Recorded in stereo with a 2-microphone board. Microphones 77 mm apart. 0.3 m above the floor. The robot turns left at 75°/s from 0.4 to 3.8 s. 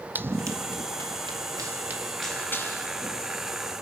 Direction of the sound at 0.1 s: 25° right (ahead or behind).